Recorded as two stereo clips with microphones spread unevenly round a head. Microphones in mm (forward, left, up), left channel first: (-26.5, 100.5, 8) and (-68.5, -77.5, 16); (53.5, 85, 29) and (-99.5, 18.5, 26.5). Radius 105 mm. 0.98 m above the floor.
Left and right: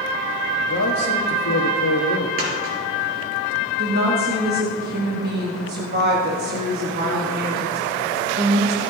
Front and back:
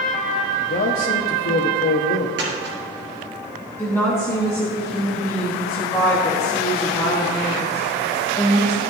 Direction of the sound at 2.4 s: 110° right.